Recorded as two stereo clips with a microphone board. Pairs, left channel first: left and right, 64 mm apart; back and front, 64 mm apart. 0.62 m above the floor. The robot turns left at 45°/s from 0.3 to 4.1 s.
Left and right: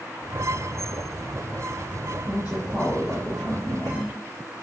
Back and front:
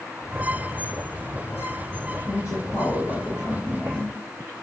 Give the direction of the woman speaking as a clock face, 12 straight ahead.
5 o'clock.